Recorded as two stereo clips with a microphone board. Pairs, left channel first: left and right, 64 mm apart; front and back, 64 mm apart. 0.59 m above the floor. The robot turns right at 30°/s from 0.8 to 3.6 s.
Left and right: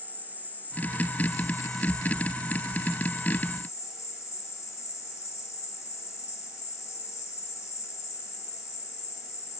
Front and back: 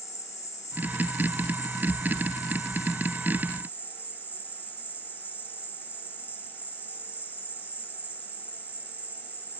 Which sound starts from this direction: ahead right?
An insect, at 0.0 s.